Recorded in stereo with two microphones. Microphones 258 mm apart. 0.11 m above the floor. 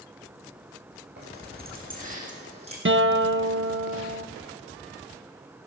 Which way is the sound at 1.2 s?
40° right (ahead or behind).